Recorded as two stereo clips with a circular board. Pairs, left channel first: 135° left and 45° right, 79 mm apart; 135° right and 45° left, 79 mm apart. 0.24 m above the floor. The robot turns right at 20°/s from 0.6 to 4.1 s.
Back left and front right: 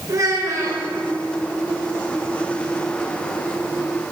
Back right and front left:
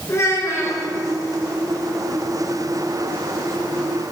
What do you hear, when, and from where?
0.1 s a child speaking: 85° right, 2.5 m; by 0.8 s 80° right, 2.5 m